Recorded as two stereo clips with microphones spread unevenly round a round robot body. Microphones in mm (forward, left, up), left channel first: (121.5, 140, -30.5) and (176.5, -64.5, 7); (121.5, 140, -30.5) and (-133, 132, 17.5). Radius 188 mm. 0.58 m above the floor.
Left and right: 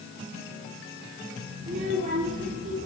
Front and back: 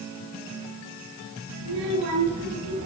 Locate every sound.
1.6 s a child speaking: 140° right, 8.5 m